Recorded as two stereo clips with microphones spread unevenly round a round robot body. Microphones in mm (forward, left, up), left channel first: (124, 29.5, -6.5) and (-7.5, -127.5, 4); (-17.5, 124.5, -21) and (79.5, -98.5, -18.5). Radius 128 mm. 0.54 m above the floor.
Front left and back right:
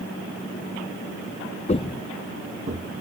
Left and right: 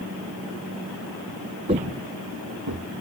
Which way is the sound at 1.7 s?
5° right.